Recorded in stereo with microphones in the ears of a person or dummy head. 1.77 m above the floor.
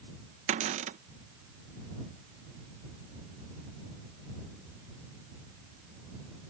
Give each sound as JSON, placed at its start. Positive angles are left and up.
{"t": 0.5, "sound": "a cupboard door", "side_deg": -40}